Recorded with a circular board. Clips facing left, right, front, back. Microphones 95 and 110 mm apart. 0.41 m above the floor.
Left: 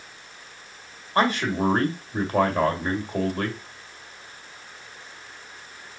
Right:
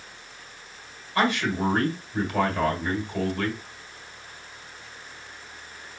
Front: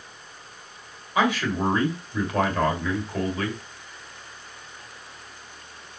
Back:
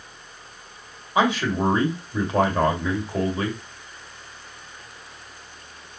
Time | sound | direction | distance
1.1 | a man speaking | 125° left | 1.8 m